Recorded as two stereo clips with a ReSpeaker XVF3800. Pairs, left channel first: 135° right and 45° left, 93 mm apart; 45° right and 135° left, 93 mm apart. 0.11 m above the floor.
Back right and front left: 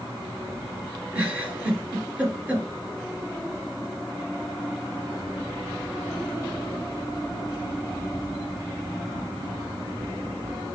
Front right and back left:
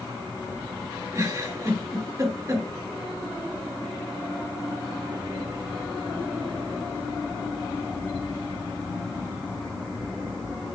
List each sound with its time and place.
1.1 s a giggle: 105° left, 2 m